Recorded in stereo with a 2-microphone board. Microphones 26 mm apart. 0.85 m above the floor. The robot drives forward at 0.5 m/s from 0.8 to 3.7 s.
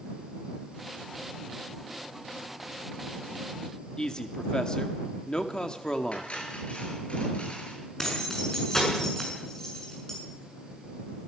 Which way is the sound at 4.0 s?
30° left (ahead or behind).